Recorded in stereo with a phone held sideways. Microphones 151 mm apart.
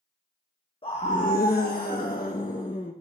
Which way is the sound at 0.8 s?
35° left (ahead or behind).